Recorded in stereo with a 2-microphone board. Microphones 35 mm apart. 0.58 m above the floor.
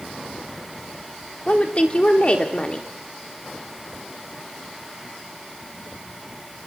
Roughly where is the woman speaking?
Left.